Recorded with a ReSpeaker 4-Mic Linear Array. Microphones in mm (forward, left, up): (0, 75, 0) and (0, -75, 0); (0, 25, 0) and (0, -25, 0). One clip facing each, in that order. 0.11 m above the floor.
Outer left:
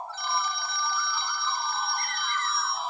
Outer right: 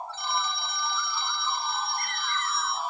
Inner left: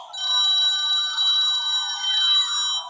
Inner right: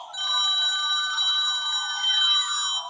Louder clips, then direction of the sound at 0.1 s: Outer left 1 dB, inner left 2 dB; 25° right (ahead or behind).